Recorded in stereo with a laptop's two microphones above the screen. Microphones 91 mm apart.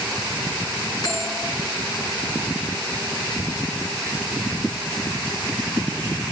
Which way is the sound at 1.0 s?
45° left (ahead or behind).